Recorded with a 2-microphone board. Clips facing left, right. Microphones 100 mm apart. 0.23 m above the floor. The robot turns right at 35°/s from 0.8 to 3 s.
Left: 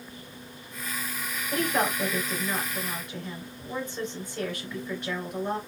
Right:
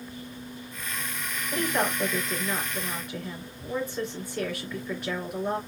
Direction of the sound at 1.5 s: 130° left.